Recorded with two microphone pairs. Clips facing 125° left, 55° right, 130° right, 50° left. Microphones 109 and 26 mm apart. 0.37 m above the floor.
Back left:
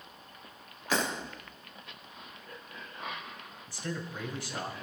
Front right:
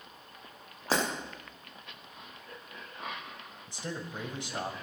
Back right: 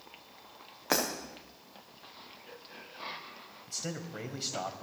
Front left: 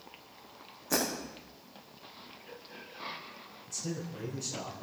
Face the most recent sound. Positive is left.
turn(degrees=-115)